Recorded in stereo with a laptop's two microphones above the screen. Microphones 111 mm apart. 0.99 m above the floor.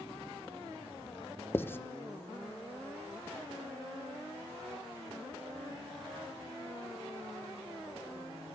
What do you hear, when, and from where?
1.5 s writing: 20° left (ahead or behind), 0.9 m